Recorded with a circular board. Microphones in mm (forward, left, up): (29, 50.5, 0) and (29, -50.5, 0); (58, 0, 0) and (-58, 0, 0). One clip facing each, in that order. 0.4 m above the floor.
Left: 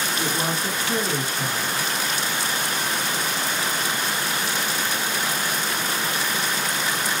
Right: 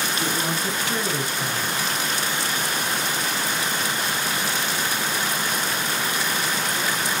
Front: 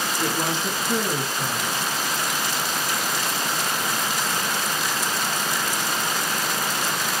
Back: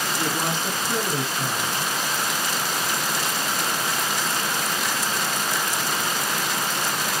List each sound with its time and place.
0.2 s a woman speaking: 120° left, 1.5 m